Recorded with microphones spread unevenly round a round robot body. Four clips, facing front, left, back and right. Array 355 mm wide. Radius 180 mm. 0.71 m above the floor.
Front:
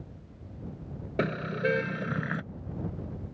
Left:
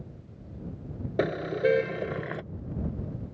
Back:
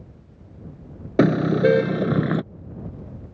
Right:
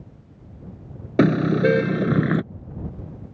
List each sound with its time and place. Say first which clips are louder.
1.2 s a car horn: right 9 dB, back 13 dB; 130° right; by 2.4 s 120° right